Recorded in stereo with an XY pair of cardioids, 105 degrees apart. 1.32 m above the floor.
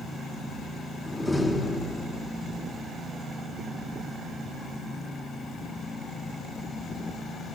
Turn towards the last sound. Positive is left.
turn(degrees=10)